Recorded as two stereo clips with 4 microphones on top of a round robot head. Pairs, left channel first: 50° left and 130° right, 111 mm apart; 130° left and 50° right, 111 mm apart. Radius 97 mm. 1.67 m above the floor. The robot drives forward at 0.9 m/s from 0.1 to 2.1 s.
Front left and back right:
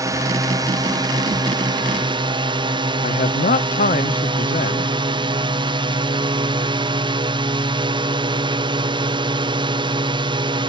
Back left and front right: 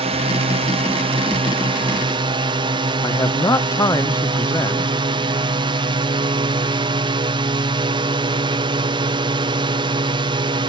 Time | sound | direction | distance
0.0 | a drone | 75° right | ?
3.0 | a man speaking | 65° left | ?